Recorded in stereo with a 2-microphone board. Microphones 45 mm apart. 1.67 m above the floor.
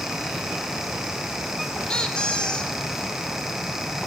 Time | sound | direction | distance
1.9 | a squeak | 20° left (ahead or behind) | 0.6 m